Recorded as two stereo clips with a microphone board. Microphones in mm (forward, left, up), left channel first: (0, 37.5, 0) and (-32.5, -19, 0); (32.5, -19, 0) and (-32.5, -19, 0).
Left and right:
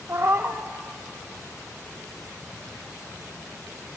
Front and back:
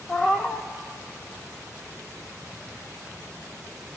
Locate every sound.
0.1 s a cat meowing: 70° right, 0.6 m